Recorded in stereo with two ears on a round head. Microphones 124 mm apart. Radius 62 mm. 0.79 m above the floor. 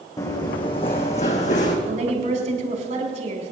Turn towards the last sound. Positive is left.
turn(degrees=-55)  # may be behind; listen again after turning